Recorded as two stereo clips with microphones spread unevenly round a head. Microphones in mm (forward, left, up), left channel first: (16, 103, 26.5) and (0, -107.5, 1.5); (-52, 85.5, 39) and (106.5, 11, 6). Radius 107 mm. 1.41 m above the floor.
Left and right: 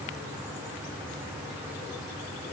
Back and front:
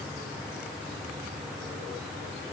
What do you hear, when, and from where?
Only background noise.